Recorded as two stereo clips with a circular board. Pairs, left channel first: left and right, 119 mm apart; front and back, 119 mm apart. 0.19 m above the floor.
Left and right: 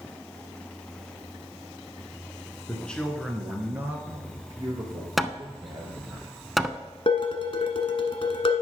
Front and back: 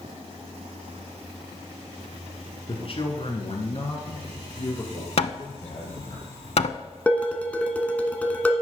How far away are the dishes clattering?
About 1.2 m.